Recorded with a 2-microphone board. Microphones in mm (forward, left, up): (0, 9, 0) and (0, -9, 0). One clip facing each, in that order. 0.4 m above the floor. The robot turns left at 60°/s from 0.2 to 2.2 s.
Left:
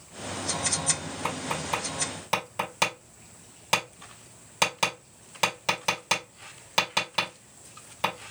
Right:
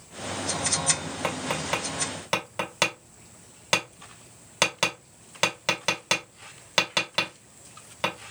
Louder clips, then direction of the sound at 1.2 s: Right 2 dB; 55° right (ahead or behind).